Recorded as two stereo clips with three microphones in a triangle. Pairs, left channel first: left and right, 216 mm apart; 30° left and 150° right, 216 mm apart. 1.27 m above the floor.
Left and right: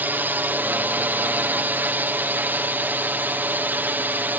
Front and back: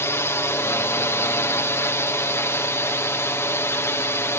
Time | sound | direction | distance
0.0 | a drone | 25° right | ?